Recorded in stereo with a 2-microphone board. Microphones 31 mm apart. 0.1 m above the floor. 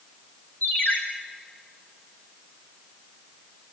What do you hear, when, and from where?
0.6 s a ringtone: 75° left (ahead or behind), 4 m